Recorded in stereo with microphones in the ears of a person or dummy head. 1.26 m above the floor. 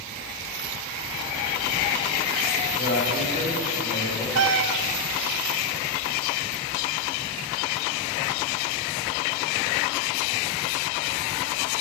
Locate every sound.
2.7 s a man speaking: 45° left (ahead or behind), 4 m; by 4.2 s 35° left (ahead or behind), 4 m
4.3 s a cat meowing: 55° right (ahead or behind), 0.9 m